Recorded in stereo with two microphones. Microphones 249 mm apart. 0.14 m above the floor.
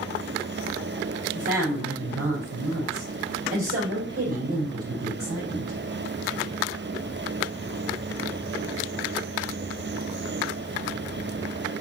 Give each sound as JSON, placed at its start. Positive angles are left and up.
{"t": 1.3, "sound": "a woman speaking", "side_deg": -70, "distance_m": 5.5}